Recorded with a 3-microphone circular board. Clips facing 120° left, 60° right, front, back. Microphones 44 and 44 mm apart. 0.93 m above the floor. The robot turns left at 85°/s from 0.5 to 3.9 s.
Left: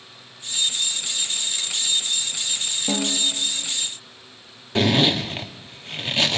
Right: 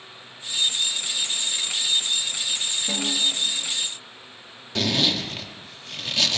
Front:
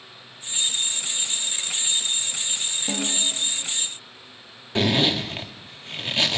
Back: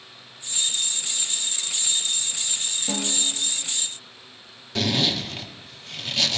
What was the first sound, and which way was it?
A snare drum, 80° left.